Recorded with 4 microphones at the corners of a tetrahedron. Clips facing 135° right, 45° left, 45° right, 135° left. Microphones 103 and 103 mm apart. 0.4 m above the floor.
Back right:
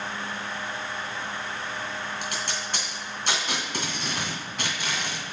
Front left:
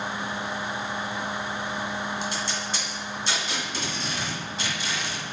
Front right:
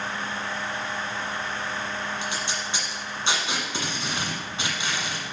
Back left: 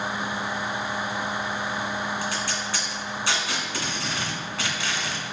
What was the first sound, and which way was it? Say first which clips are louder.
Tape being pulled: front left 2 dB, back left 2 dB; 110° right.